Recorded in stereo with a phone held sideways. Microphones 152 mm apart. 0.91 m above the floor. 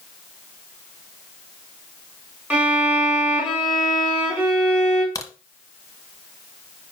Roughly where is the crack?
Left.